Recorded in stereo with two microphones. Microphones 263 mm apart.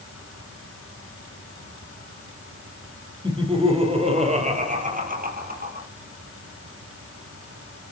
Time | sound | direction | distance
3.2 | laughter | 20° right (ahead or behind) | 5 m